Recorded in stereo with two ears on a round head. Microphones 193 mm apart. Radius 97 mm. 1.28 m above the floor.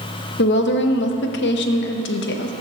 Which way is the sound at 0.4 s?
55° left (ahead or behind).